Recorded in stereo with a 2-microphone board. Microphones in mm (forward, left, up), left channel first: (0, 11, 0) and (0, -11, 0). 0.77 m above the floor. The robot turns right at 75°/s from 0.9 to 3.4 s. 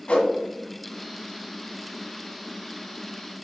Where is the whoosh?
55° left (ahead or behind), 1.5 m.